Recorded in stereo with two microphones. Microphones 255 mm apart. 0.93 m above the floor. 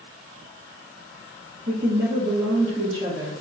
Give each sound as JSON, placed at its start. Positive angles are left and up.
{"t": 1.7, "sound": "a woman speaking", "side_deg": -45, "distance_m": 1.6}